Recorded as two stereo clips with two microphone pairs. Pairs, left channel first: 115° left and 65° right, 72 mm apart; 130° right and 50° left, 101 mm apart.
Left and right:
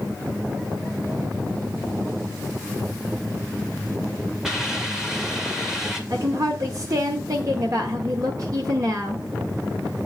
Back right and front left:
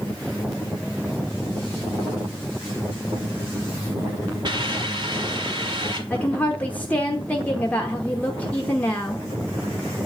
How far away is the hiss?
About 1.8 m.